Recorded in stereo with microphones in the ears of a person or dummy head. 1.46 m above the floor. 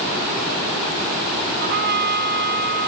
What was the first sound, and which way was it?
A trumpet, 55° right (ahead or behind).